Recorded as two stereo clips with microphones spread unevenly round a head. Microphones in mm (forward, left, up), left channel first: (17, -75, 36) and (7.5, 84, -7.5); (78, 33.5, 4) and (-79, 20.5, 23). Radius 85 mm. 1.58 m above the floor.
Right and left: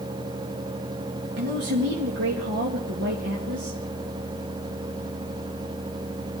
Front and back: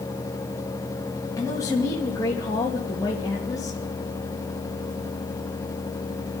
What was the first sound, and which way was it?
A man speaking, 75° left.